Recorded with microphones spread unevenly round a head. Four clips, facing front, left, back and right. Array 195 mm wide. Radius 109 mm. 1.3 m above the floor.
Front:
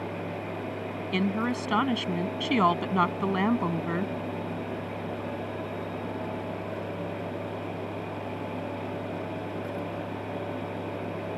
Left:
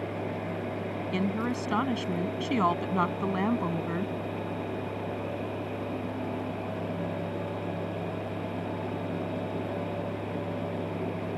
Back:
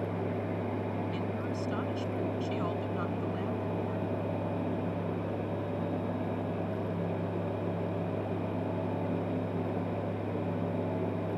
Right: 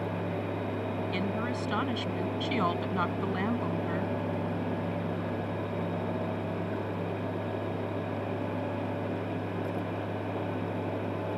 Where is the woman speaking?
10° left.